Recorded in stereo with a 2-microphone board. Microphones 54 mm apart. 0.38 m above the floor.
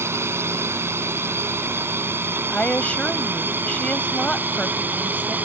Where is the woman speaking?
25° left (ahead or behind).